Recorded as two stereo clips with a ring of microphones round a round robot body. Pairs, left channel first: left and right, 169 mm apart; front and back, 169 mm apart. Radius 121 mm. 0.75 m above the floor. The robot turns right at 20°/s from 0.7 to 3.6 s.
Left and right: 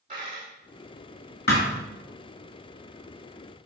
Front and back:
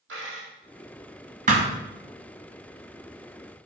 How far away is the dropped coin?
About 3.5 m.